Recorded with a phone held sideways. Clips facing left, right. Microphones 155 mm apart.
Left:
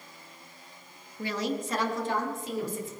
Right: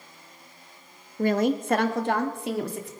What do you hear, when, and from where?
1.2 s a woman speaking: 50° right (ahead or behind), 0.9 m; by 2.9 s 75° right (ahead or behind), 2 m